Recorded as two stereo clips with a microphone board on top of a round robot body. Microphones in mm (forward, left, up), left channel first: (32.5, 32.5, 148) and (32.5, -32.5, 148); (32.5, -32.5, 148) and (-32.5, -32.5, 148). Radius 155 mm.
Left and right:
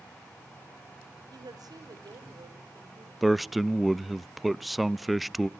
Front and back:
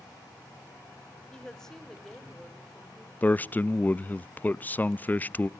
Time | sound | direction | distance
1.3 | a woman speaking | 80° right | 3 m
3.2 | a man speaking | straight ahead | 0.6 m